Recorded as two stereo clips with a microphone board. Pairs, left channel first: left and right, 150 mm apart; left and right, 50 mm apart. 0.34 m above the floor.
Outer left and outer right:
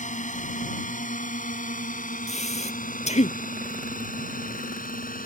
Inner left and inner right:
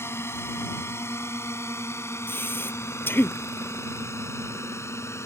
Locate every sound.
0.0 s a drone: 60° left (ahead or behind); by 5.3 s 70° left (ahead or behind)
2.3 s breathing: 50° left (ahead or behind)